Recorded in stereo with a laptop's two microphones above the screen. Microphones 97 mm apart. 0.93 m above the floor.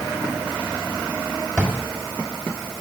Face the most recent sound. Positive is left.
turn(degrees=15)  # may be behind; listen again after turning